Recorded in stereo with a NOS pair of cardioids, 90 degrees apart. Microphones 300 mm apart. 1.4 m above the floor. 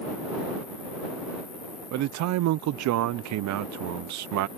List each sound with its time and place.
0.0 s an insect: 30° left
1.9 s a man speaking: 65° right